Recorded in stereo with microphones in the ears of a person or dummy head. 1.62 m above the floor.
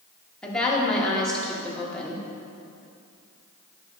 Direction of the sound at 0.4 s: 10° left (ahead or behind).